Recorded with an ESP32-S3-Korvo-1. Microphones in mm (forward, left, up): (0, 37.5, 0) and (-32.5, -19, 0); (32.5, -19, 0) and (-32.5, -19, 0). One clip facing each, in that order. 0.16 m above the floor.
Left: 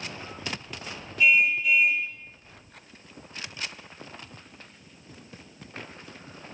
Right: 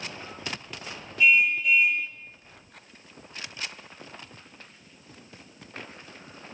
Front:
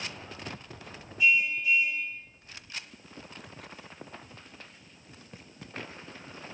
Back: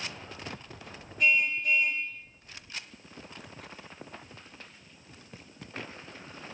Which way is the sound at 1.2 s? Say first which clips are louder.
Even, front 1 dB; 150° left.